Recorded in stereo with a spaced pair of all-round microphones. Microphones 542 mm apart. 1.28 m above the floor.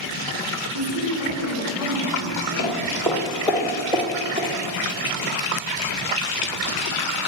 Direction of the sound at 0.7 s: 40° right (ahead or behind).